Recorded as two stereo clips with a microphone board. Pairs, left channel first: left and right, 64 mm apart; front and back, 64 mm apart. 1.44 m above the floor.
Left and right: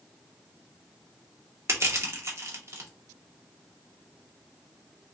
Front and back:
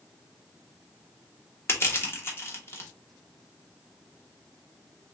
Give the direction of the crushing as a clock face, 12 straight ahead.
2 o'clock.